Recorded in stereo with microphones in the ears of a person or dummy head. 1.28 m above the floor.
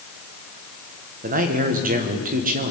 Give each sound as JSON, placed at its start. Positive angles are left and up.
{"t": 1.2, "sound": "a man speaking", "side_deg": -40, "distance_m": 1.1}